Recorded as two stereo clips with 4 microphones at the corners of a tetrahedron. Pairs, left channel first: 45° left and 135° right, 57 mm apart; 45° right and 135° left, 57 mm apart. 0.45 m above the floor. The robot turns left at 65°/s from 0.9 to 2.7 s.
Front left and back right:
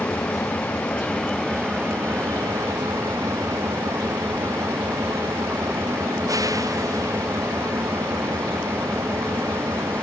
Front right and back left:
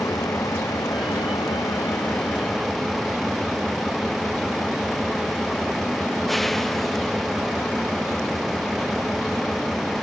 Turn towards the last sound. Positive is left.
turn(degrees=-130)